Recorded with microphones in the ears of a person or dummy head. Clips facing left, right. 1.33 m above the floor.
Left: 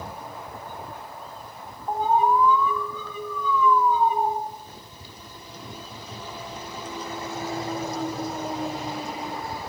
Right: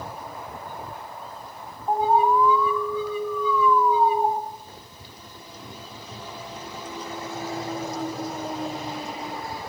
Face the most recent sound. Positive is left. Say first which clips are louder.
# right 1 dB
turn(degrees=-10)  # may be behind; listen again after turning